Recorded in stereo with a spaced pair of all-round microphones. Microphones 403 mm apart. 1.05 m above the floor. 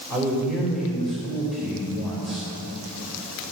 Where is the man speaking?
Centre (ahead or behind), 4 m.